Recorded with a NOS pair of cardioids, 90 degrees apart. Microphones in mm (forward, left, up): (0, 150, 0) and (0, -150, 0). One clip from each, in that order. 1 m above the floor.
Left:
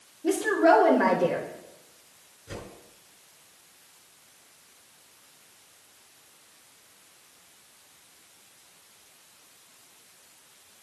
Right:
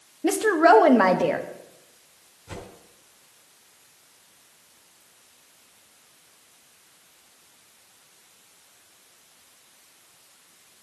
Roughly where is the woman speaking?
Ahead right.